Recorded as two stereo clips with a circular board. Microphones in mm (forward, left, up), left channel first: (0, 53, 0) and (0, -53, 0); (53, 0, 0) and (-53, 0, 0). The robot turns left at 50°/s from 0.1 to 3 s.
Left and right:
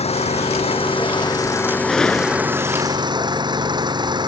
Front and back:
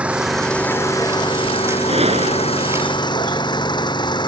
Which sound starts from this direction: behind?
A gunshot, at 1.9 s.